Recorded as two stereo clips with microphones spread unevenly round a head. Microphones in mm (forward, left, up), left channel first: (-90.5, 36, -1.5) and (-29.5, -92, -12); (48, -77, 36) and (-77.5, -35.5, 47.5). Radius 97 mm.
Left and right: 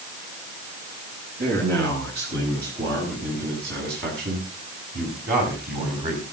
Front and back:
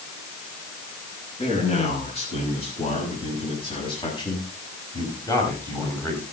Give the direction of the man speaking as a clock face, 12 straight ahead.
2 o'clock.